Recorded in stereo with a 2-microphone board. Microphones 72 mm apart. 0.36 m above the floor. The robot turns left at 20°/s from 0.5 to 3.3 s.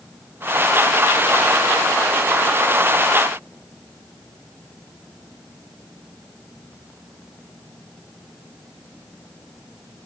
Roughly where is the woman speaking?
I don't hear a woman speaking.